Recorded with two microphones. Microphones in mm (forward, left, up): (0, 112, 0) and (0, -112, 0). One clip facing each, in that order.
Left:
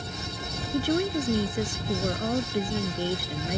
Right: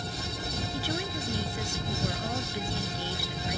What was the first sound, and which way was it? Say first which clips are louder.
A woman speaking: left 12 dB; 55° left (ahead or behind).